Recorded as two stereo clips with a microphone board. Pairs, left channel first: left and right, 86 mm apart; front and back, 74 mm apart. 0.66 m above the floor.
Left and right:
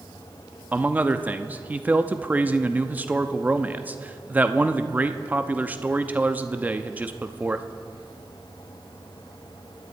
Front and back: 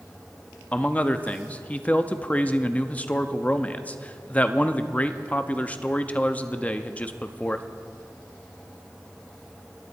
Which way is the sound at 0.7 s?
45° right.